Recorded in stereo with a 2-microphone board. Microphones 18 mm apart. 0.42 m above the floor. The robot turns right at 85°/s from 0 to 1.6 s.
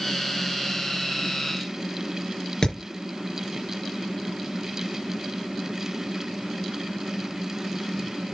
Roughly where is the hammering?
Left.